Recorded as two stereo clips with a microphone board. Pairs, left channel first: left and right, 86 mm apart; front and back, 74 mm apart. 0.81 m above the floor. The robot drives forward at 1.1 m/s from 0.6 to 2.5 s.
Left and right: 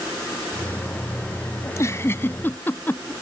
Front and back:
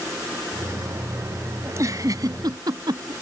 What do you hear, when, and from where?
1.6 s a giggle: 135° left; by 3.1 s 155° left